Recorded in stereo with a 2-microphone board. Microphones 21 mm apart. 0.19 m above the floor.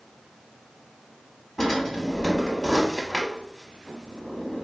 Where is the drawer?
20° left (ahead or behind), 0.7 m.